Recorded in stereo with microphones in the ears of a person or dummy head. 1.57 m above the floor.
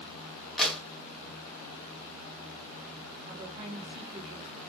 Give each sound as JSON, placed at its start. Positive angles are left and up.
{"t": 0.6, "sound": "a clap", "side_deg": 10, "distance_m": 0.8}
{"t": 3.3, "sound": "a woman speaking", "side_deg": -35, "distance_m": 1.4}